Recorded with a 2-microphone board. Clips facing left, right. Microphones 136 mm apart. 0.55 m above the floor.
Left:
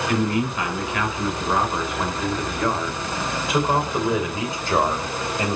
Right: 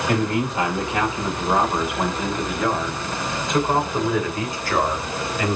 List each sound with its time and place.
0.1 s a man speaking: 40° right (ahead or behind), 3 m; by 5.6 s 30° left (ahead or behind), 3 m